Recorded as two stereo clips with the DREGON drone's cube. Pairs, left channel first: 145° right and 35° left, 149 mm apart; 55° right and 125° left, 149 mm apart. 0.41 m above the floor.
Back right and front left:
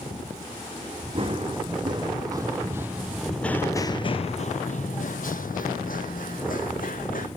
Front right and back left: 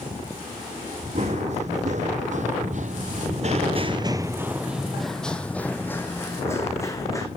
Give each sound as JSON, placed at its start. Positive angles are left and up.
{"t": 1.1, "sound": "running footsteps", "azimuth_deg": 85, "distance_m": 1.4}